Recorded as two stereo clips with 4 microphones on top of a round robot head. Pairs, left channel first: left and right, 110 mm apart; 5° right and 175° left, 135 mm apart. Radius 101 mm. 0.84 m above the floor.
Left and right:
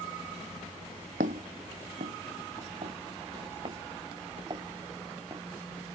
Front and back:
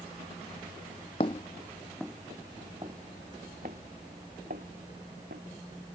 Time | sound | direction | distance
1.2 | footsteps | 65° right | ?